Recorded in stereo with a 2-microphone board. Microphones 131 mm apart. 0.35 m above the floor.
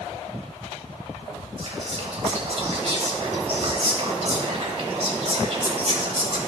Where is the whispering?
50° right (ahead or behind), 1.8 m.